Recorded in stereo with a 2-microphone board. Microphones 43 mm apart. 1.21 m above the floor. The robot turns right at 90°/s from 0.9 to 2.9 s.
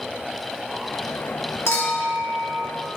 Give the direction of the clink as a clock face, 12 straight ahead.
9 o'clock.